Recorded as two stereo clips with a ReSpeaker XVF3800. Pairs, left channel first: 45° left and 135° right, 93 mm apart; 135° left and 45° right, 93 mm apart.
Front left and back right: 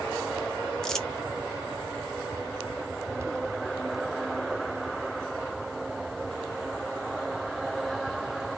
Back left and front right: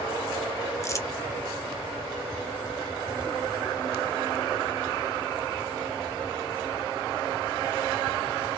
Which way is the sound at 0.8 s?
120° left.